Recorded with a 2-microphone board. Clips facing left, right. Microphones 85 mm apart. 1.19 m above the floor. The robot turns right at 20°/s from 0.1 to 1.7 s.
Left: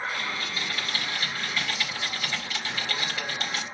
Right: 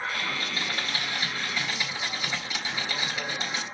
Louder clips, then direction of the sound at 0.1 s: Right 1 dB; 50° right.